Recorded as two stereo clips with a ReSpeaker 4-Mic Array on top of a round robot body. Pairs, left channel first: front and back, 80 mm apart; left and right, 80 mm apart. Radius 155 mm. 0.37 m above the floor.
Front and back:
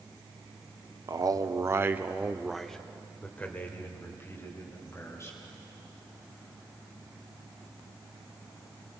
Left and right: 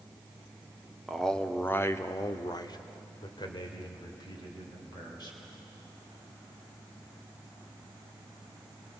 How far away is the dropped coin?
No dropped coin in this recording.